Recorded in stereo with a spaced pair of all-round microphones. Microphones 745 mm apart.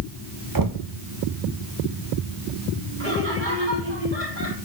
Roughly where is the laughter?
Right.